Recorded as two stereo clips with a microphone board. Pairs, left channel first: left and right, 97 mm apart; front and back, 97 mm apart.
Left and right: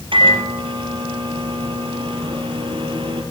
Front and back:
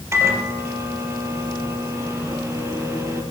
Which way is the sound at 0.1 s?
115° right.